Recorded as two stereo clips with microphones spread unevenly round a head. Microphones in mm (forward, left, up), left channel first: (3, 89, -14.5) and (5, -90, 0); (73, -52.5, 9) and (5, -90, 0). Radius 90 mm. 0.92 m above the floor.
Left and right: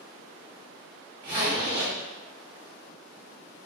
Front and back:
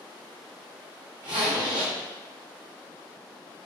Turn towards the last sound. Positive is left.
turn(degrees=-160)